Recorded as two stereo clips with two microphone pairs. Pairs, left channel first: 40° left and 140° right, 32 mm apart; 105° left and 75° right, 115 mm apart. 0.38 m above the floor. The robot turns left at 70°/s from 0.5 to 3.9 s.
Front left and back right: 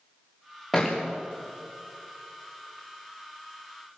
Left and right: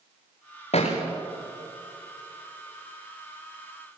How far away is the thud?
About 4.5 m.